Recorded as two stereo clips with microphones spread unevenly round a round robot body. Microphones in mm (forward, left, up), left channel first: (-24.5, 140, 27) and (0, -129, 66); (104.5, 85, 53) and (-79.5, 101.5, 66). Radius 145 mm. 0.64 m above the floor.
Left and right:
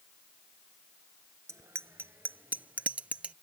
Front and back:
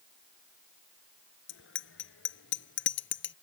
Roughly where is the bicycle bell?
Ahead.